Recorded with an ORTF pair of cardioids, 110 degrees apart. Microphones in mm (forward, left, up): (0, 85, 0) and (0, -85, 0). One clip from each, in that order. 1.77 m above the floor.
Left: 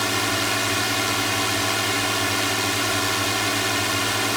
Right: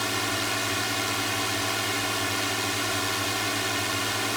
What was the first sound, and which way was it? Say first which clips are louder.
A drone: left 5 dB; 30° left.